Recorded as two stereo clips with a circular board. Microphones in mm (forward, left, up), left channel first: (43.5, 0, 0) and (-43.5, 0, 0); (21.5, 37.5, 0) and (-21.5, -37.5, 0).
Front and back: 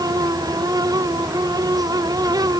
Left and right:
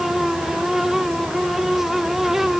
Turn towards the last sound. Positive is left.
No sound to turn to.